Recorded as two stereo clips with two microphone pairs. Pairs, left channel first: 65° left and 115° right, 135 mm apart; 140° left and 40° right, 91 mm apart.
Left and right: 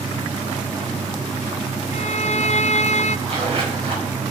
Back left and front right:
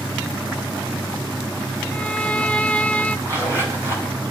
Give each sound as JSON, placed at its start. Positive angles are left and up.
{"t": 1.9, "sound": "a violin", "azimuth_deg": 60, "distance_m": 0.6}
{"t": 3.3, "sound": "a zipper", "azimuth_deg": -160, "distance_m": 5.0}